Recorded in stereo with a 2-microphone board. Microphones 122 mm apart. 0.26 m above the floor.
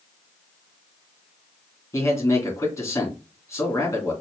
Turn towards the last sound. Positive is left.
turn(degrees=25)  # may be behind; listen again after turning